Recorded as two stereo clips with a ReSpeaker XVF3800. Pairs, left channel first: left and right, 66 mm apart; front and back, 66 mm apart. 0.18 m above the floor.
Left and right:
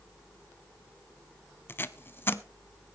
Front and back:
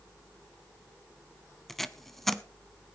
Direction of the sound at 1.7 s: 85° left.